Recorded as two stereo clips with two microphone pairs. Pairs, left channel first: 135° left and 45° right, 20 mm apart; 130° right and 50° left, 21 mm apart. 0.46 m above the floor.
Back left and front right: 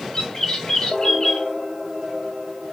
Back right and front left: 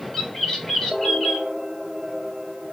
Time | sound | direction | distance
0.1 | a bird | 175° left | 1.3 m